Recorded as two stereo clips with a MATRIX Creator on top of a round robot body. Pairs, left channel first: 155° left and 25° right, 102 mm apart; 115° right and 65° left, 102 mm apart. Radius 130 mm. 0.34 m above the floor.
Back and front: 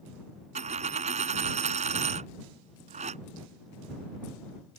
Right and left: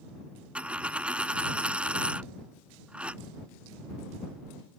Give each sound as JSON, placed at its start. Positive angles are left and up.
{"t": 0.6, "sound": "a dropped coin", "azimuth_deg": -15}